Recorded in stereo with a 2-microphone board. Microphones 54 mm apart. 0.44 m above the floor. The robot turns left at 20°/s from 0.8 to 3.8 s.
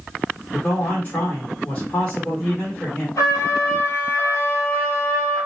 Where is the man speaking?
85° left, 1.2 m; by 3.1 s 40° left, 1.2 m.